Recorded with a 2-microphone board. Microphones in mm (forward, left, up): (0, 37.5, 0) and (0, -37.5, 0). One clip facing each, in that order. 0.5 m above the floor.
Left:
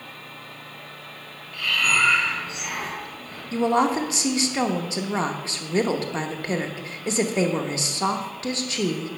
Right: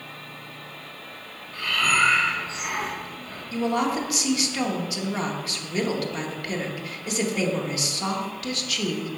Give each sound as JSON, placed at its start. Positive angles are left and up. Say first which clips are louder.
{"t": 1.5, "sound": "breathing", "louder": "even", "side_deg": -35, "distance_m": 2.0}
{"t": 3.5, "sound": "a woman speaking", "louder": "left 4 dB", "side_deg": 30, "distance_m": 0.8}